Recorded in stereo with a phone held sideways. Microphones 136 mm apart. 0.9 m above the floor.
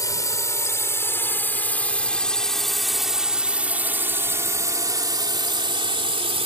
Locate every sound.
0.0 s a drone: 25° left (ahead or behind); by 6.5 s 45° right (ahead or behind)